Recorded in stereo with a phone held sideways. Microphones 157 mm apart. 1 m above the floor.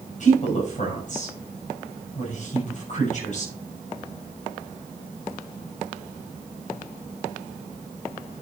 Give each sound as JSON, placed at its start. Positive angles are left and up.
{"t": 0.2, "sound": "a woman speaking", "side_deg": 50, "distance_m": 6.0}